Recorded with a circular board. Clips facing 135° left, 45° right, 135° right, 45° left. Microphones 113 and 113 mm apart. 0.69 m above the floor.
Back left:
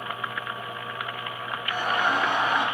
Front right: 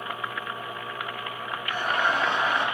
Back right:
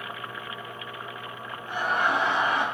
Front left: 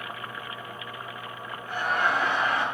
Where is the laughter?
160° left, 2.5 m.